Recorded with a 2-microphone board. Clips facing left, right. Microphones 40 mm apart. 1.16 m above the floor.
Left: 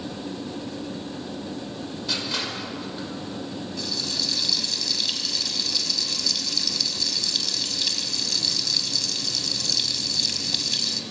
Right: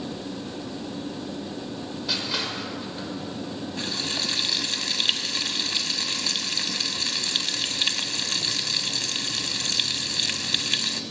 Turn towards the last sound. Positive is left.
turn(degrees=-40)  # may be behind; listen again after turning